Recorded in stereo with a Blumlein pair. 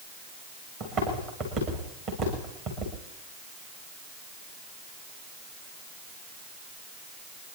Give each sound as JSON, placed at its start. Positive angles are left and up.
{"t": 0.8, "sound": "footsteps", "azimuth_deg": -40, "distance_m": 8.0}